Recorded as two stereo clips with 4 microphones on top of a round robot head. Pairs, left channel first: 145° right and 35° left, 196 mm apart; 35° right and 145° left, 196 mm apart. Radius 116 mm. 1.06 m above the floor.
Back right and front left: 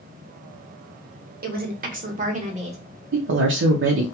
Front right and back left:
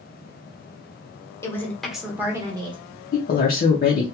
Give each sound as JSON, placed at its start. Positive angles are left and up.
{"t": 1.4, "sound": "a woman speaking", "azimuth_deg": 35, "distance_m": 1.0}
{"t": 3.1, "sound": "a woman speaking", "azimuth_deg": 10, "distance_m": 0.5}